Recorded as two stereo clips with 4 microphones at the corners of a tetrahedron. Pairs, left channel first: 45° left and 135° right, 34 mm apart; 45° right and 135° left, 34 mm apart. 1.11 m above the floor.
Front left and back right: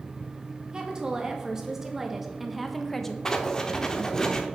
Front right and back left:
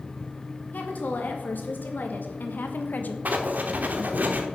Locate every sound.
0.7 s a woman speaking: 70° right, 2.5 m; by 3.1 s 30° right, 1.1 m
3.2 s writing: 115° left, 1.1 m